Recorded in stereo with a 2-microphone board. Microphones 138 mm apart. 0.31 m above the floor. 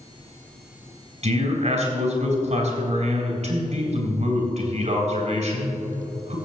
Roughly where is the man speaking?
Right.